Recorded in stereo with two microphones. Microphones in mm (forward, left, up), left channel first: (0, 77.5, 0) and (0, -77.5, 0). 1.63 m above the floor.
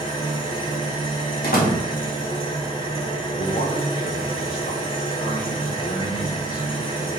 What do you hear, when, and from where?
0.0 s an engine running: 35° left (ahead or behind), 3.5 m
1.4 s a door slam: 80° left, 2.5 m
3.3 s a man speaking: 85° left, 2.5 m